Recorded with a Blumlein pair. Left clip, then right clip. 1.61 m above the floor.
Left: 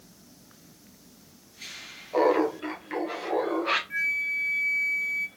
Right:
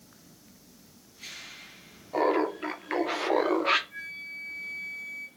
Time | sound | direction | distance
2.1 | laughter | straight ahead | 0.9 m
3.9 | a flute | 35° left | 0.5 m